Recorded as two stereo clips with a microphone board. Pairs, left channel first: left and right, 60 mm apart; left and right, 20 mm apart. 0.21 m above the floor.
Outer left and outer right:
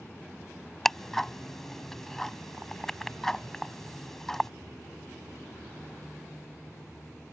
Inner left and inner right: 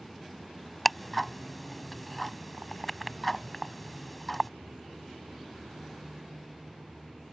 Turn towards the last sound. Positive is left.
turn(degrees=5)  # may be behind; listen again after turning